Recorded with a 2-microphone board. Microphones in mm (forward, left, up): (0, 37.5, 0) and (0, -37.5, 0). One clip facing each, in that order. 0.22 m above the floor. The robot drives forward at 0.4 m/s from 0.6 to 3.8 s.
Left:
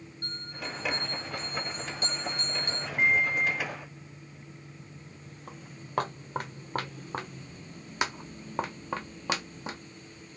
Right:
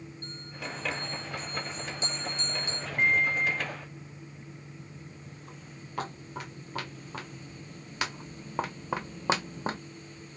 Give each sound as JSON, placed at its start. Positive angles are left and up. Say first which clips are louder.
{"t": 0.2, "sound": "a bell", "louder": "left 2 dB", "side_deg": 60, "distance_m": 2.5}
{"t": 3.0, "sound": "a microwave", "louder": "even", "side_deg": 5, "distance_m": 1.0}
{"t": 5.5, "sound": "footsteps", "louder": "left 1 dB", "side_deg": 55, "distance_m": 1.9}